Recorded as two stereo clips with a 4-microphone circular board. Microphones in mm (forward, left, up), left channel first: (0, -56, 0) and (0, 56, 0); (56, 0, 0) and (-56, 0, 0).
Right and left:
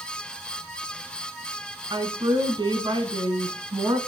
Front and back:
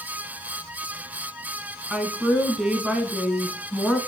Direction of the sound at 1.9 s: 100° left.